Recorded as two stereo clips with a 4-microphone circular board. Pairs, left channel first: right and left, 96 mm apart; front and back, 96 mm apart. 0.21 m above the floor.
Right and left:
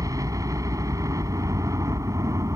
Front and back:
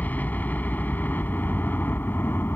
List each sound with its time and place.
0.0 s a helicopter: 65° left; by 2.6 s 55° left